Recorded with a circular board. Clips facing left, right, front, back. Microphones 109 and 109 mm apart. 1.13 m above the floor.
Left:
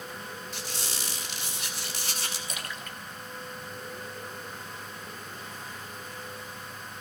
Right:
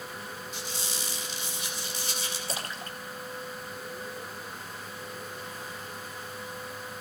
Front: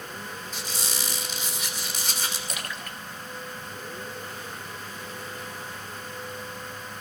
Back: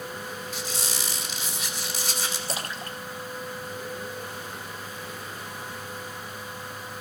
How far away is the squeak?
About 2 m.